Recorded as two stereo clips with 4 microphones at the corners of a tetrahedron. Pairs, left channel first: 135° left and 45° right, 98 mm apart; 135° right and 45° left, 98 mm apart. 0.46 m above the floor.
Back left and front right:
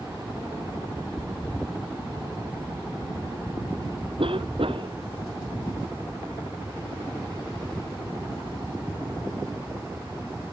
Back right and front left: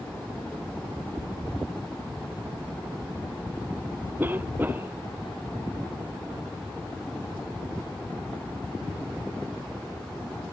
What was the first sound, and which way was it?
A cough, 25° right.